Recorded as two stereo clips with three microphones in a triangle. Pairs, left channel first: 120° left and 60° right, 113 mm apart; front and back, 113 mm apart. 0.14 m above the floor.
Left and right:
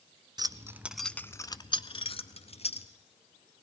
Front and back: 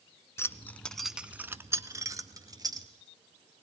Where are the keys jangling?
50° right, 0.9 m; by 2.9 s 125° left, 1.9 m.